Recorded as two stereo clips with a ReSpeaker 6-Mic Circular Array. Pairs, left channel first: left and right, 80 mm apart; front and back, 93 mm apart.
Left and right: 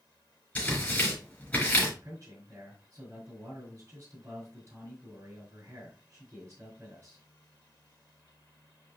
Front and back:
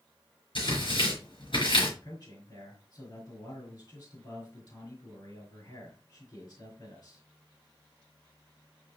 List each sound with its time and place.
0.6 s tearing paper: 20° left, 4.5 m
2.0 s a man speaking: 35° right, 4.5 m